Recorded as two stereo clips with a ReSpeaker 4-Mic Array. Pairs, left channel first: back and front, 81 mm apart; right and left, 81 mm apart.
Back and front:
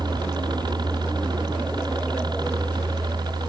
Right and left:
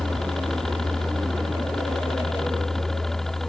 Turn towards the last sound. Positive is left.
turn(degrees=-5)